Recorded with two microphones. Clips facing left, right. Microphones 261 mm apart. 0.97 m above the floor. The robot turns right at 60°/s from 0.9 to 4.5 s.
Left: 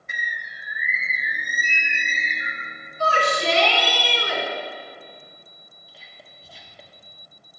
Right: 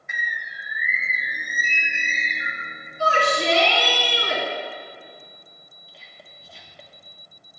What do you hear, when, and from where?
0.1 s a bird: 40° left, 0.9 m; by 2.7 s 145° left, 0.9 m
3.0 s a shout: 165° right, 2 m; by 4.4 s 80° right, 2 m
5.9 s whispering: centre (ahead or behind), 1.6 m